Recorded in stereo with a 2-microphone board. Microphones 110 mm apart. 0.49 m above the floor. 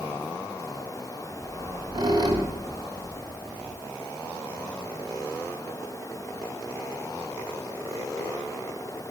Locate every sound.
1.4 s a squeak: 40° right (ahead or behind), 2.5 m